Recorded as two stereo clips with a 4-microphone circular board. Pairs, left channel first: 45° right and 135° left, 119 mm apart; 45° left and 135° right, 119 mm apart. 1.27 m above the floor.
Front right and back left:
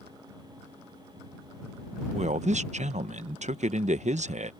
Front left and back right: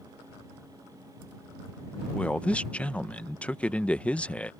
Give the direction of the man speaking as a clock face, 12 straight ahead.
8 o'clock.